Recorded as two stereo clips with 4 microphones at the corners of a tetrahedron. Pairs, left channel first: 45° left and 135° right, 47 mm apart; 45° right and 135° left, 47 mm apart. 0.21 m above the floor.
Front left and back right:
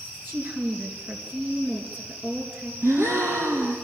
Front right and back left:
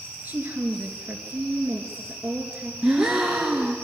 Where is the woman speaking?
175° right, 3.5 m.